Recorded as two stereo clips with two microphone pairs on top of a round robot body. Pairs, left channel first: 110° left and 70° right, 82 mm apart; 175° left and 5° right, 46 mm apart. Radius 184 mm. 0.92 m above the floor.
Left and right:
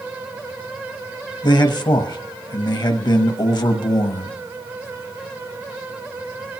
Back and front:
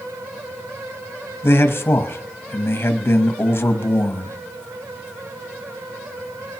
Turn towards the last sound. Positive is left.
turn(degrees=140)